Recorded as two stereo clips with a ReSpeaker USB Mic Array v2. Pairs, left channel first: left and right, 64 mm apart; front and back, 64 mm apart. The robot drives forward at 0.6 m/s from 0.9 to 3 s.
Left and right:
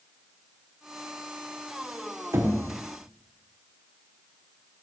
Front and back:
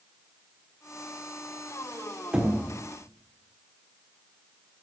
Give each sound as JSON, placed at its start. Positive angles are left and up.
{"t": 2.3, "sound": "knocking", "azimuth_deg": -110, "distance_m": 1.2}